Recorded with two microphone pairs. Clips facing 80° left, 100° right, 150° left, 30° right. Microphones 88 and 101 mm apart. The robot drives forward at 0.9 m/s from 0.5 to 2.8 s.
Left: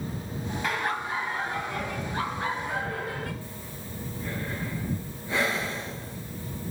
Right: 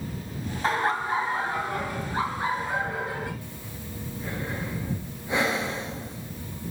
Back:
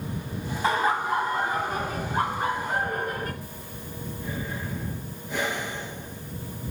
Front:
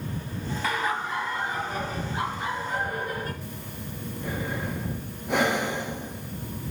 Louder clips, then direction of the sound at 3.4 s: Even, front 2 dB; 30° right.